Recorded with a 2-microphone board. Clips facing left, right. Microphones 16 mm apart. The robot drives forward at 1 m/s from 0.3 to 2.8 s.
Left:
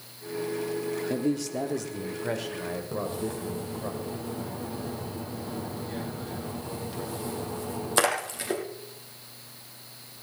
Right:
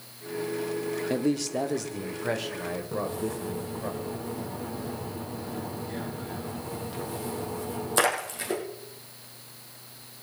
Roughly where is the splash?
Centre.